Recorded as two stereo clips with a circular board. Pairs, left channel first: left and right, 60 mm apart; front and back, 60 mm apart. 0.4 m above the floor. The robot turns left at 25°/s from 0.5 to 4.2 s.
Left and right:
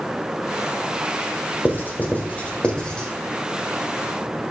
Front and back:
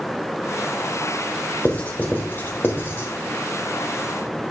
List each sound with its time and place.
1.6 s writing: 55° left, 1.4 m; by 3.1 s 15° left, 1.4 m